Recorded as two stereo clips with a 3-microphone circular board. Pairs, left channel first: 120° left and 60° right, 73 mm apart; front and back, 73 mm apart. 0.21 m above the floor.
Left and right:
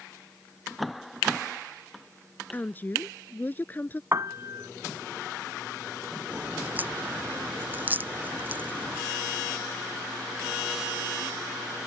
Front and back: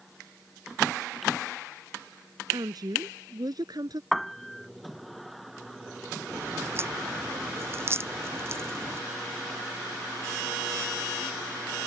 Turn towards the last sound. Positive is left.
turn(degrees=-125)